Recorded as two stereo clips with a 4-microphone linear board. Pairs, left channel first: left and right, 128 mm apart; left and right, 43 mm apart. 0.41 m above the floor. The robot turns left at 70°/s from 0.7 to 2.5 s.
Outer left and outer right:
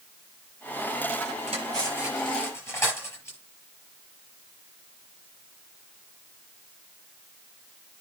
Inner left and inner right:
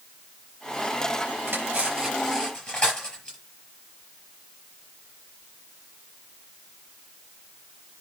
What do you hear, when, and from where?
1.5 s cutlery clinking: 50° right (ahead or behind), 5.5 m; by 3.4 s 20° left (ahead or behind), 5.5 m